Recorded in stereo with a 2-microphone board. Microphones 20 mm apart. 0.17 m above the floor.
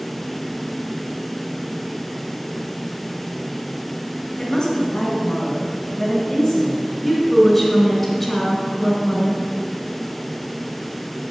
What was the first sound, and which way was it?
A woman speaking, 25° left (ahead or behind).